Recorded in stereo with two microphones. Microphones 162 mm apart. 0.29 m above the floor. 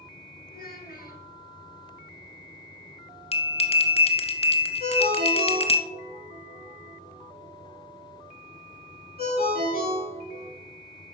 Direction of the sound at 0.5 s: 65° left (ahead or behind).